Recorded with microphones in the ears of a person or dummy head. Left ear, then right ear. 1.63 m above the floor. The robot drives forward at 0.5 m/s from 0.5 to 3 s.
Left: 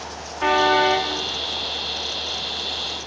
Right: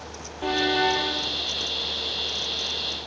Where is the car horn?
55° left (ahead or behind), 2 m; by 1.1 s 50° left (ahead or behind), 2 m.